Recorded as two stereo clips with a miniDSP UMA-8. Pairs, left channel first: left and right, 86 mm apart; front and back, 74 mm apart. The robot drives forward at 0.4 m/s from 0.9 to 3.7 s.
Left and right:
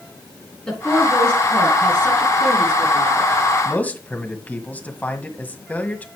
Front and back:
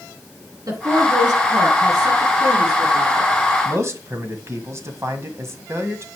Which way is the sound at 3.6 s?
150° left.